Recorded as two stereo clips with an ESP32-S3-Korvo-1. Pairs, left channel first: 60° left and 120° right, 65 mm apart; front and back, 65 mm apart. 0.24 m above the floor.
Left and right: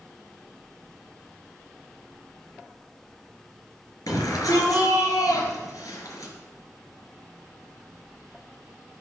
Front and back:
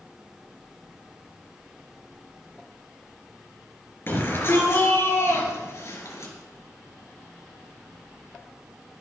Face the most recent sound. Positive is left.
turn(degrees=35)